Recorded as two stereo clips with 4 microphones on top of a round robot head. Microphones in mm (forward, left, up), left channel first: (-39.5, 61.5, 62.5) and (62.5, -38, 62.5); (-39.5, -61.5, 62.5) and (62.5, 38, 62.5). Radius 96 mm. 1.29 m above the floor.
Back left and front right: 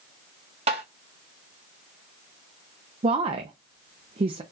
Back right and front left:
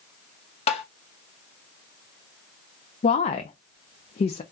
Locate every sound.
0.7 s tapping: 95° right, 0.7 m
3.0 s a woman speaking: 95° right, 0.5 m